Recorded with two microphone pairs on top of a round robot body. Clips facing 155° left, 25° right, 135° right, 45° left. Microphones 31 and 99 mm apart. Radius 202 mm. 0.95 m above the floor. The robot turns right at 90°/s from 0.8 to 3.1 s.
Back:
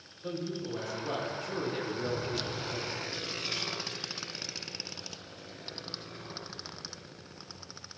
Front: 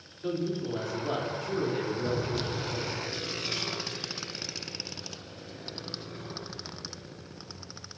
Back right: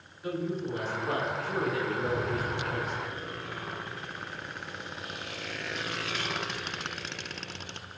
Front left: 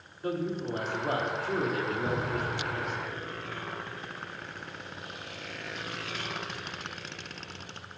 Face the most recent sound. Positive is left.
turn(degrees=140)